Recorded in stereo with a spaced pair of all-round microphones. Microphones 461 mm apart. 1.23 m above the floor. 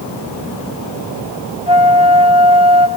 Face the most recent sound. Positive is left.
turn(degrees=-10)  # may be behind; listen again after turning